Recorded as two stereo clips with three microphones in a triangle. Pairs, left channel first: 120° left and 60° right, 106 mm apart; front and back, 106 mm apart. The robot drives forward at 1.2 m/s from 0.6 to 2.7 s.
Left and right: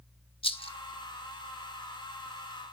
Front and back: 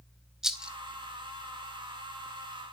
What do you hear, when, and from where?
0.4 s a rattle: 95° left, 1.0 m; by 0.7 s 105° left, 1.1 m